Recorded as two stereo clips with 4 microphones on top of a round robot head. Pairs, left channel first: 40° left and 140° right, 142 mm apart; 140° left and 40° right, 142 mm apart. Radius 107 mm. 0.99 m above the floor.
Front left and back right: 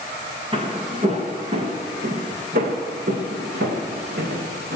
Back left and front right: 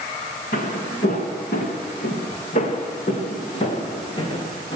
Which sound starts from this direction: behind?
Footsteps, at 0.5 s.